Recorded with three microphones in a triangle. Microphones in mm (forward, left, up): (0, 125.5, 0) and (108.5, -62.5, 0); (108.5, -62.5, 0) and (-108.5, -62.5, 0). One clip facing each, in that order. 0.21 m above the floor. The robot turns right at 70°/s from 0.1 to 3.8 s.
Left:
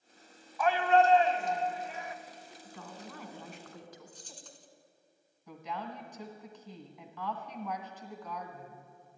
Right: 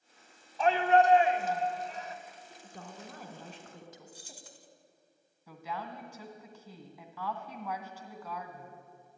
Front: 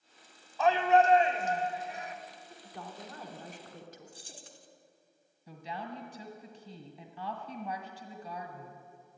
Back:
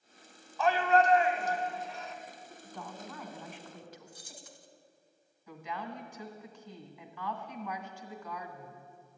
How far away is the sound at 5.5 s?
About 1.9 m.